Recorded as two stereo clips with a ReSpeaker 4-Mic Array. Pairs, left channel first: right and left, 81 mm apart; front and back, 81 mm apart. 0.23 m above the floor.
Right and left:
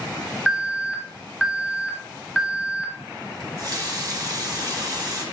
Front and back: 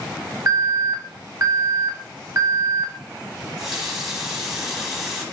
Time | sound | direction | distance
0.5 | an alarm | 170° left | 0.8 m
3.4 | a running tap | 95° left | 0.9 m